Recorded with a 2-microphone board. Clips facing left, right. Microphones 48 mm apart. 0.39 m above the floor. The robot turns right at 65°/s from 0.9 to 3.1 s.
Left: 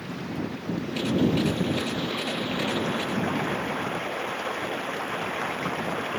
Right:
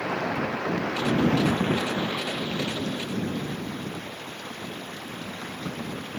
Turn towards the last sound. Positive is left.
turn(degrees=50)